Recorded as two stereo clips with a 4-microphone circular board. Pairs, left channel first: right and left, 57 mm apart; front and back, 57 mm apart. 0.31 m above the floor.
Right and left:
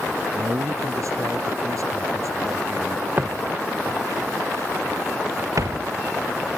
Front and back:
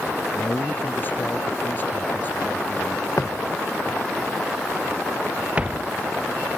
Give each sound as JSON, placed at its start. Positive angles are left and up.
{"t": 0.3, "sound": "a man speaking", "azimuth_deg": 60}
{"t": 3.2, "sound": "footsteps", "azimuth_deg": 30}